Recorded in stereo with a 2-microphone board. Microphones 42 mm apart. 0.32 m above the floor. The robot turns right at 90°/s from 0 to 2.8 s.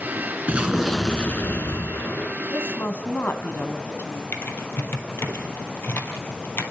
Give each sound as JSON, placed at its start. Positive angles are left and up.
{"t": 0.5, "sound": "an explosion", "azimuth_deg": -35, "distance_m": 2.5}
{"t": 2.5, "sound": "a woman speaking", "side_deg": 60, "distance_m": 2.5}
{"t": 4.3, "sound": "typing on a keyboard", "side_deg": 65, "distance_m": 3.0}